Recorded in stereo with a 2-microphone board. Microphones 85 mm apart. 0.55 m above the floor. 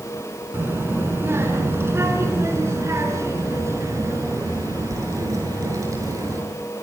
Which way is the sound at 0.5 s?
25° right (ahead or behind).